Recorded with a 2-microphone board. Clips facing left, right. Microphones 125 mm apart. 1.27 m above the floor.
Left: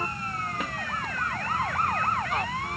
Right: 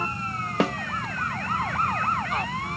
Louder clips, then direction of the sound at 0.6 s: Right 10 dB; 85° right.